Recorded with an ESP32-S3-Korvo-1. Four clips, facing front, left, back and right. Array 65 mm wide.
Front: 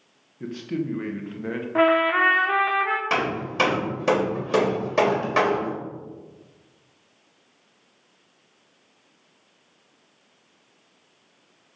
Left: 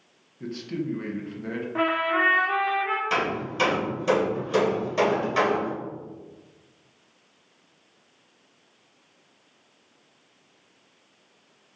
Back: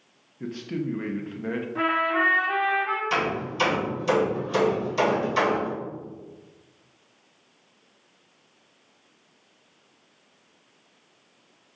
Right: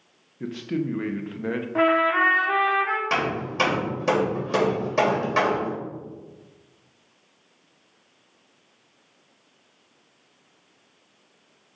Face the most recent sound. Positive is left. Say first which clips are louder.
# right 1 dB, front 1 dB
turn(degrees=-20)